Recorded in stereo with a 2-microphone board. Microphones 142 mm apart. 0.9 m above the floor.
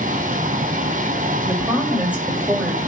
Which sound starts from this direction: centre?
A woman speaking, at 1.4 s.